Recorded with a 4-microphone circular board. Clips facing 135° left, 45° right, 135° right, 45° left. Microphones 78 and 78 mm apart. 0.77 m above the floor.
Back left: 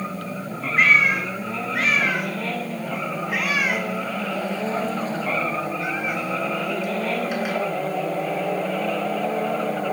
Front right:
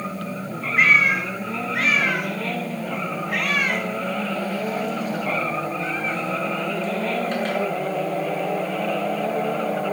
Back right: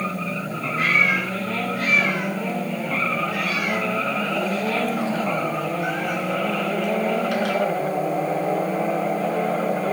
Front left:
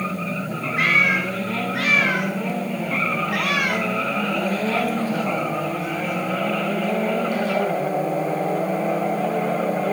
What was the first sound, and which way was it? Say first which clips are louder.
A cat meowing: even, front left 1 dB; 45° left.